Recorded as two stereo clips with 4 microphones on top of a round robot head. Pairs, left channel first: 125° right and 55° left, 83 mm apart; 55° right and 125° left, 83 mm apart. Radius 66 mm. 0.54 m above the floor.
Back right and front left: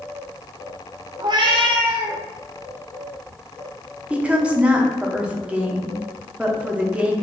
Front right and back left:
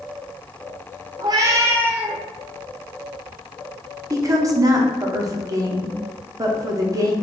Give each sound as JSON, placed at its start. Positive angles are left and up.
{"t": 1.2, "sound": "a cat meowing", "azimuth_deg": 95, "distance_m": 0.7}
{"t": 4.1, "sound": "a woman speaking", "azimuth_deg": 125, "distance_m": 0.9}